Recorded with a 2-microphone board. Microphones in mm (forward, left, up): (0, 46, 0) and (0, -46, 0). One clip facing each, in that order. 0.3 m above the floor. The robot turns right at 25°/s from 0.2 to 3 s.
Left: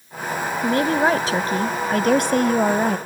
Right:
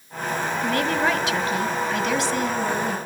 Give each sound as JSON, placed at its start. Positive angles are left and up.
{"t": 0.6, "sound": "a woman speaking", "azimuth_deg": 25, "distance_m": 1.4}